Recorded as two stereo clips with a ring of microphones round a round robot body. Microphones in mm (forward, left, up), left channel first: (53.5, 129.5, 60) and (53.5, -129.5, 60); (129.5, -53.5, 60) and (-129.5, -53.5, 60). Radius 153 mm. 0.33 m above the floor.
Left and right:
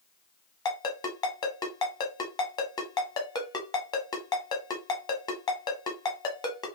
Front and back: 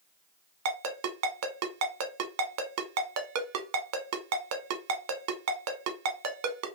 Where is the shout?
I don't hear a shout.